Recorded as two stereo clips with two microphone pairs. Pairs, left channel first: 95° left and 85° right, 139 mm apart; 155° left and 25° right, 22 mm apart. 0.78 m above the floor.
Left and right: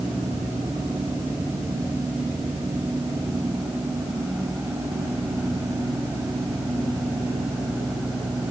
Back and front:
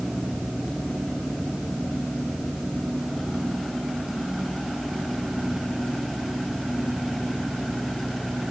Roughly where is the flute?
No flute in this recording.